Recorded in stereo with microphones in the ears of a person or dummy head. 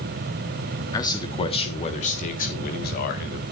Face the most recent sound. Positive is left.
turn(degrees=55)  # may be behind; listen again after turning